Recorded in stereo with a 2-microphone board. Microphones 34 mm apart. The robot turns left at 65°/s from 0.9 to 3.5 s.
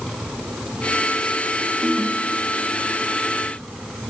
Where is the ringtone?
30° right, 1.5 m; by 3.0 s 110° right, 1.5 m.